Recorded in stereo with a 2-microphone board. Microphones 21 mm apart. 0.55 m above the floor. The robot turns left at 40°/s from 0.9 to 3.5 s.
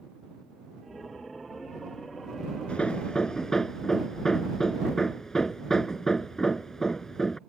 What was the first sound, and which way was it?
Hammering, 50° left.